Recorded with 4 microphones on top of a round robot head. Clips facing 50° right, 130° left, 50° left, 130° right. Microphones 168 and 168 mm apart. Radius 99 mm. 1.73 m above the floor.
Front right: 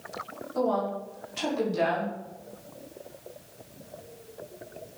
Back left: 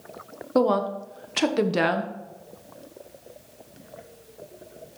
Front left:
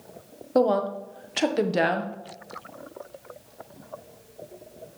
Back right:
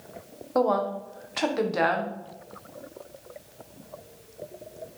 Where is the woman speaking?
110° left, 1.6 m.